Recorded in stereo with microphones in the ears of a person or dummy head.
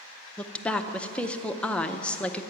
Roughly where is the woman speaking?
Centre.